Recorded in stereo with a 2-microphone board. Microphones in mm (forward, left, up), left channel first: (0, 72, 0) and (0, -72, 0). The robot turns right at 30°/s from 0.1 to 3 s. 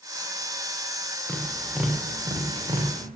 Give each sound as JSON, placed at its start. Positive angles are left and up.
{"t": 1.3, "sound": "tapping", "side_deg": 5, "distance_m": 4.5}